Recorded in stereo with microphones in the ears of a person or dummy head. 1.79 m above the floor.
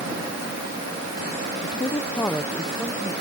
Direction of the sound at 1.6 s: 30° left (ahead or behind).